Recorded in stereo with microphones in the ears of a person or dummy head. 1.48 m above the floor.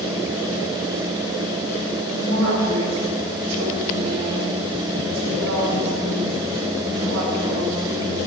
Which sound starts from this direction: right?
A woman speaking, at 2.1 s.